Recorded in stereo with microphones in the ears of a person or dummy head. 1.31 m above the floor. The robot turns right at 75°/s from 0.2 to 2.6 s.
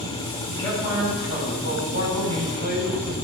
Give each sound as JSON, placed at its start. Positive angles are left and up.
{"t": 0.5, "sound": "a man speaking", "azimuth_deg": 155, "distance_m": 8.0}